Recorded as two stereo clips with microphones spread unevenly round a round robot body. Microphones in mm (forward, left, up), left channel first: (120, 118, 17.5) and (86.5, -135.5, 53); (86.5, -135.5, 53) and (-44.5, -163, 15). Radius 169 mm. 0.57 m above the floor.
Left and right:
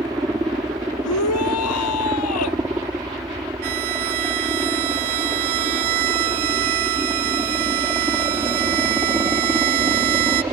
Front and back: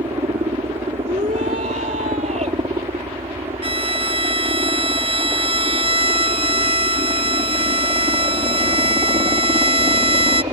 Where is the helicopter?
175° right.